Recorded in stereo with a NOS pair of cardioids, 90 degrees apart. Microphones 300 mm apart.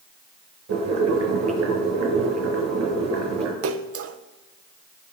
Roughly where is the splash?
Ahead right.